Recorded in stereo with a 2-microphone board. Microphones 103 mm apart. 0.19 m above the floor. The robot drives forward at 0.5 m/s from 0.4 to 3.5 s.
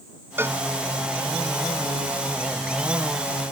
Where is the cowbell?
25° right (ahead or behind).